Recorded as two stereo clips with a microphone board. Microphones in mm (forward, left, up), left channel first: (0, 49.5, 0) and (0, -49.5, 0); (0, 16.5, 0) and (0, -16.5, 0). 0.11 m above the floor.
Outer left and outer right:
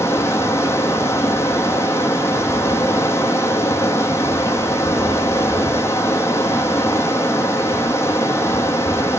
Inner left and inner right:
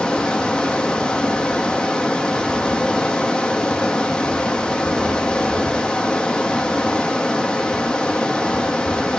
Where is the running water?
25° left (ahead or behind), 1.1 m.